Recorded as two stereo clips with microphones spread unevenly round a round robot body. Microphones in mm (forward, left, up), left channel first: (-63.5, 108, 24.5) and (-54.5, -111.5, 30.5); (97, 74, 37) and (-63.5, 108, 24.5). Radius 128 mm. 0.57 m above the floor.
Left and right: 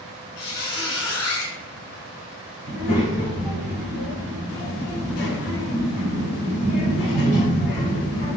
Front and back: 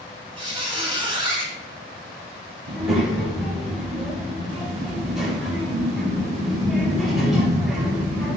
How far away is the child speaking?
About 1.6 m.